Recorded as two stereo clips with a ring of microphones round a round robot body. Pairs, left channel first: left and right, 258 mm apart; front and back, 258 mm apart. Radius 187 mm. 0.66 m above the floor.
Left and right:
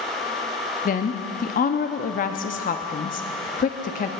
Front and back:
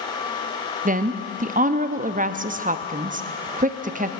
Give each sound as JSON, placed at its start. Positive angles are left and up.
{"t": 0.8, "sound": "a woman speaking", "azimuth_deg": 135, "distance_m": 0.7}